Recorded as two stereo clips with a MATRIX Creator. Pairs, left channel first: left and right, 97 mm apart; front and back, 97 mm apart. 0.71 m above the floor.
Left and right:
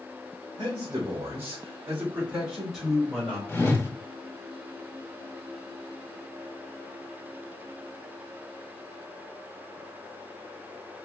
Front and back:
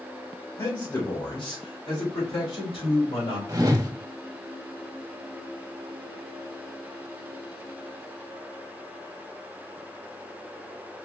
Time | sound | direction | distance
0.6 | a man speaking | 40° right | 2.5 m
3.5 | a whoosh | 145° left | 1.0 m